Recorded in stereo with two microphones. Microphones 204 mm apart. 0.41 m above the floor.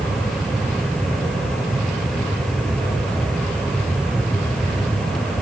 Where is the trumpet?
I don't hear a trumpet.